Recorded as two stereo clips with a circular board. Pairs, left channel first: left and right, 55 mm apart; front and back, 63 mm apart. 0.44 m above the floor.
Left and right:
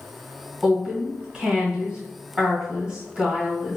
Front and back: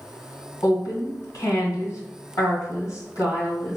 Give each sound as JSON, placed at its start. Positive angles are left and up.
{"t": 0.6, "sound": "a woman speaking", "azimuth_deg": -20, "distance_m": 1.8}